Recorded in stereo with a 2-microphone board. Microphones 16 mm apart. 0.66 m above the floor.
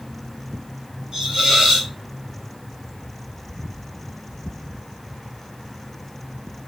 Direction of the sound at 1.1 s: 55° right (ahead or behind).